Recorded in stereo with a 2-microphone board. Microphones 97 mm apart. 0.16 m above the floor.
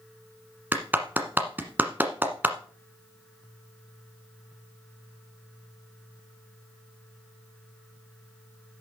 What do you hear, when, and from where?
0.7 s a clap: 20° right (ahead or behind), 1.3 m